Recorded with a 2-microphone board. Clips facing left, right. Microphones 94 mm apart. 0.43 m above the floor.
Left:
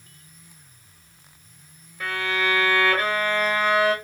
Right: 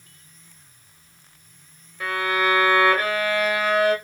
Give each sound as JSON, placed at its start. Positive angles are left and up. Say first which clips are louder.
{"t": 2.0, "sound": "a violin", "louder": "right 3 dB", "side_deg": -5, "distance_m": 1.4}